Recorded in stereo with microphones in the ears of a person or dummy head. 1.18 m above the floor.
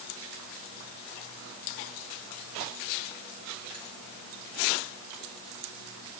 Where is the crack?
I don't hear a crack.